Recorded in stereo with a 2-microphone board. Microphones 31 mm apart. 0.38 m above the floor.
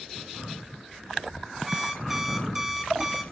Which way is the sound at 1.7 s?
10° right (ahead or behind).